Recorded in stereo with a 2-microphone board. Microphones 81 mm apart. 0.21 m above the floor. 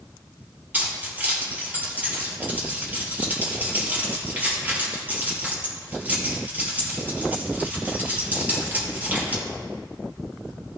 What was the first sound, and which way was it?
Keys jangling, 20° right (ahead or behind).